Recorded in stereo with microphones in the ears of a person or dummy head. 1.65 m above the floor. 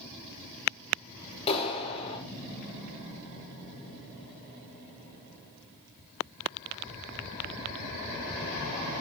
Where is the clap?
30° left (ahead or behind), 5 m.